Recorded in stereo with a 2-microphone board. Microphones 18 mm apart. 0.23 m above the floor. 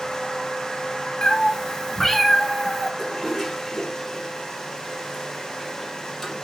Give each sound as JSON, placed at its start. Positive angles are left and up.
{"t": 1.2, "sound": "a cat meowing", "side_deg": 40, "distance_m": 1.1}
{"t": 3.0, "sound": "a toilet flushing", "side_deg": 15, "distance_m": 4.0}